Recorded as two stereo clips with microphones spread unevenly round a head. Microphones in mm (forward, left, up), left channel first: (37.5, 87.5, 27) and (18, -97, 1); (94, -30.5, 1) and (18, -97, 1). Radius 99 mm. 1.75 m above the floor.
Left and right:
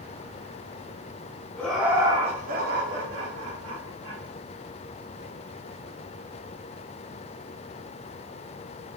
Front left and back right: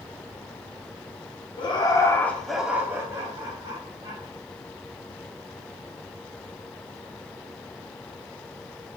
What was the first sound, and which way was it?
Laughter, 5° left.